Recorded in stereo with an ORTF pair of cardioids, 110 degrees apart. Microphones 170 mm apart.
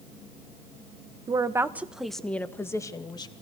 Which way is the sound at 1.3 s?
25° right.